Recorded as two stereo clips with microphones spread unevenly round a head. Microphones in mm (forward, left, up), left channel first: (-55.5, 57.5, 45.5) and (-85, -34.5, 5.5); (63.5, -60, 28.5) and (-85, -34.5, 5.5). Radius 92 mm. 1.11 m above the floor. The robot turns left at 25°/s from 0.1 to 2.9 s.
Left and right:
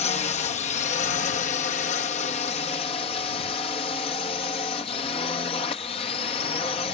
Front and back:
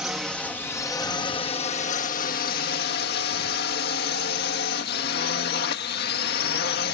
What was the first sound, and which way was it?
A drone, 85° left.